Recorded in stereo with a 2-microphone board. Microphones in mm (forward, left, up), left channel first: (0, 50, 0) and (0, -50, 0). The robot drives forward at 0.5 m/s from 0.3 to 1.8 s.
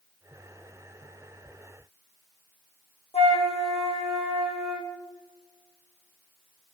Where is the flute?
85° left, 2.5 m.